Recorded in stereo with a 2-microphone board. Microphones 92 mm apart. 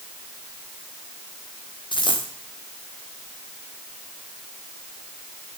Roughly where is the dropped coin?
Left.